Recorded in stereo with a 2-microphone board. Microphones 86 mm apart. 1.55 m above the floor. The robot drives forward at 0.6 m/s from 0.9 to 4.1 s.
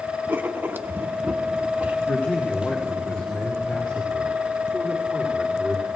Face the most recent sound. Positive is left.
turn(degrees=15)  # may be behind; listen again after turning